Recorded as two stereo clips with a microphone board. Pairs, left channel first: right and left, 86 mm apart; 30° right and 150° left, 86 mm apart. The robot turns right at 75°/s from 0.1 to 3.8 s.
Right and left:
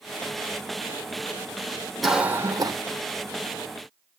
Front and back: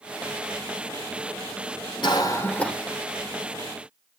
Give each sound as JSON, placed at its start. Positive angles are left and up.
{"t": 2.0, "sound": "a cough", "azimuth_deg": 0, "distance_m": 2.5}